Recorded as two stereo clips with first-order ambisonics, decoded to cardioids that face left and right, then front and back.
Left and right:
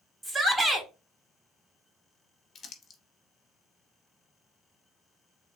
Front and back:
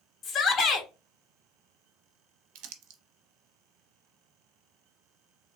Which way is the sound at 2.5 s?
165° left.